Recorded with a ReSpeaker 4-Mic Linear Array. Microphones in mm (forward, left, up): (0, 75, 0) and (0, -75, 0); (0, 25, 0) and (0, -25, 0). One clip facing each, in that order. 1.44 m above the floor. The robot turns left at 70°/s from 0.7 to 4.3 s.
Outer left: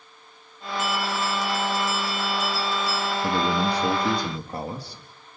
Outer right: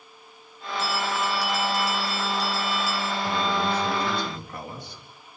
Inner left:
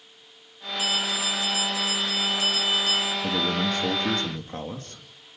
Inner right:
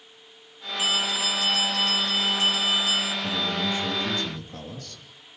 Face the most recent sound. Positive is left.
turn(degrees=35)